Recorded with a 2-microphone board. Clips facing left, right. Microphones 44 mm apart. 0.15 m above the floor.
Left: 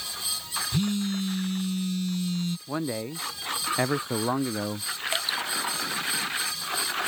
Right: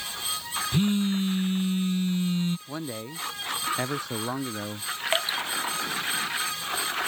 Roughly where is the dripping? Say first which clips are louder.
Right 3 dB; right.